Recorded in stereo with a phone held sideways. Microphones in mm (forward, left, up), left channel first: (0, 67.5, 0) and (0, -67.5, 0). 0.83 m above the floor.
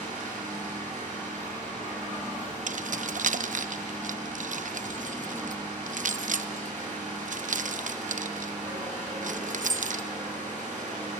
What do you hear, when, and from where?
0.0 s an engine running: 70° right (ahead or behind), 7.5 m
2.7 s keys jangling: 70° right (ahead or behind), 0.6 m